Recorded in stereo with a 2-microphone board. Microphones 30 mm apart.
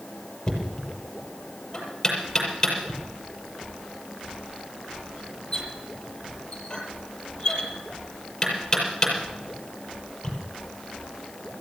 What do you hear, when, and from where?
0.5 s knocking: 15° left (ahead or behind), 6.5 m